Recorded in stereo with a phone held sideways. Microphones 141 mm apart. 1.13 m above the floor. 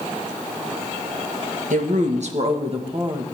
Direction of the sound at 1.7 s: 65° right (ahead or behind).